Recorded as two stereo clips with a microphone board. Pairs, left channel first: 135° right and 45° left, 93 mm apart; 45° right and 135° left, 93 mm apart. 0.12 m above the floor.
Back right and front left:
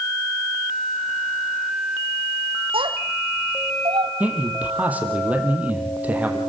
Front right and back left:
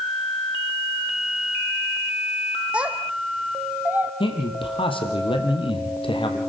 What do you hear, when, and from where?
2.7 s a child speaking: 60° left, 3 m; by 4.1 s 65° left, 2 m
4.2 s a man speaking: 30° right, 4.5 m